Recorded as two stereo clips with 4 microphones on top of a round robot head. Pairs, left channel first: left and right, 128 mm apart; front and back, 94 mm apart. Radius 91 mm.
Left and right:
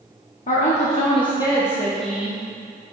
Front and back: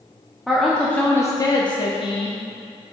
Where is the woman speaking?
90° left, 1.0 m; by 2.4 s 10° right, 1.2 m.